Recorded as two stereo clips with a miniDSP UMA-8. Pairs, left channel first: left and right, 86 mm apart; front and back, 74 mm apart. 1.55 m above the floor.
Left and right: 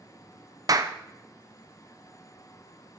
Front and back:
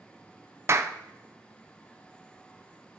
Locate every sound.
0.7 s a clap: 130° right, 0.6 m